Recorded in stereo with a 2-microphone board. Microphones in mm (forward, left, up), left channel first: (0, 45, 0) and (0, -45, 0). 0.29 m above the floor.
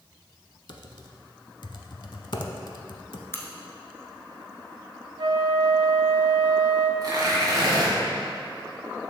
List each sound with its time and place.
0.7 s typing on a keyboard: 60° left (ahead or behind), 0.5 m
3.3 s a crack: 30° left (ahead or behind), 0.8 m
5.2 s a flute: 60° right (ahead or behind), 0.6 m
7.0 s tearing paper: 45° right (ahead or behind), 1.9 m